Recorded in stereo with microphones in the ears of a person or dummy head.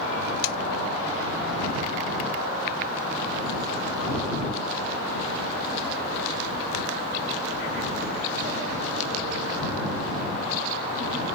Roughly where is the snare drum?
Left.